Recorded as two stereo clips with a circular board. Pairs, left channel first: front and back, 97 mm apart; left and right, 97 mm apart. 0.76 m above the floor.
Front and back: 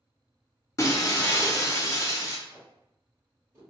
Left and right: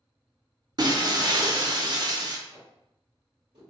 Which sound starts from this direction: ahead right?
Breaking glass, at 0.8 s.